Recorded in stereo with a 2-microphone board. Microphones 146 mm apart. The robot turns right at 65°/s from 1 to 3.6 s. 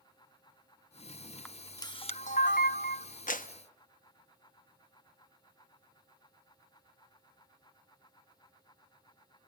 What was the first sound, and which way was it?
A camera shutter, 5° left.